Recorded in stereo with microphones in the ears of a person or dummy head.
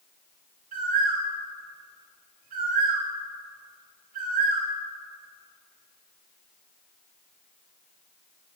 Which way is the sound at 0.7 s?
50° right (ahead or behind).